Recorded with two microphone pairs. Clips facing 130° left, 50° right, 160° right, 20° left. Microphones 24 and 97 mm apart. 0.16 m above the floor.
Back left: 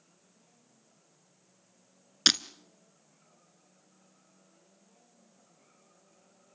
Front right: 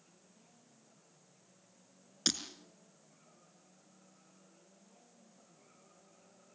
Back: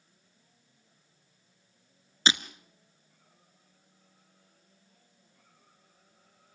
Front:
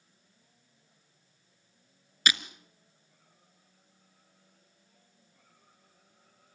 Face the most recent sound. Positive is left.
turn(degrees=140)